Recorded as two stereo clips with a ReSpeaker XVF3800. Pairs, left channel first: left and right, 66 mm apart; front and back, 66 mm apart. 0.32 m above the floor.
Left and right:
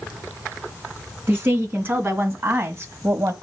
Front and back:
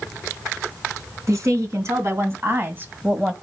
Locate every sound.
1.3 s a woman speaking: 145° right, 3 m; by 3.3 s 110° right, 1.3 m